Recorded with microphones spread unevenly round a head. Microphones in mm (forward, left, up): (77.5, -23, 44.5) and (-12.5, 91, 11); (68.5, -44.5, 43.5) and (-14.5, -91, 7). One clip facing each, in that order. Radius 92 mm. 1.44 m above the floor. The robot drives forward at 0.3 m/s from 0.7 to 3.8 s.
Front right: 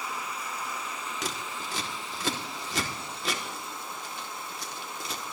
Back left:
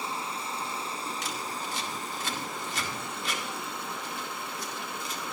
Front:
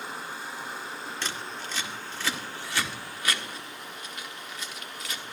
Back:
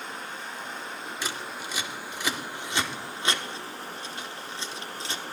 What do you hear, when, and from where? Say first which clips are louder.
0.0 s running water: back left 1 dB, even; 70° left, 1.6 m; by 5.3 s 125° left, 1.7 m
1.2 s scissors: back left 1 dB, back 2 dB; 60° right, 2 m; by 5.2 s 85° right, 2.0 m